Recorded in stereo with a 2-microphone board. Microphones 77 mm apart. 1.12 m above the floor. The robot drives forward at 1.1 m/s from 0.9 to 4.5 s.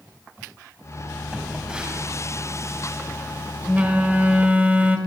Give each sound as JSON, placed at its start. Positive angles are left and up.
{"t": 1.3, "sound": "a phone buzzing", "side_deg": -15, "distance_m": 7.5}